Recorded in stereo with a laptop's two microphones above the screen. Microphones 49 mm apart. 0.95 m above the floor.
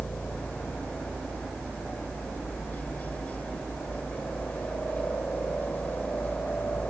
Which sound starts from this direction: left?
A helicopter, at 0.0 s.